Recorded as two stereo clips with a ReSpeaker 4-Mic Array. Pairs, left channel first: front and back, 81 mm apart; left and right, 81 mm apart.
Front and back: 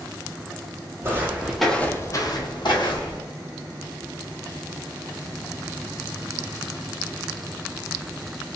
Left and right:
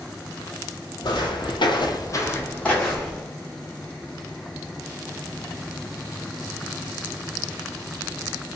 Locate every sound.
1.0 s footsteps: 120° left, 0.8 m; by 3.2 s 5° left, 1.1 m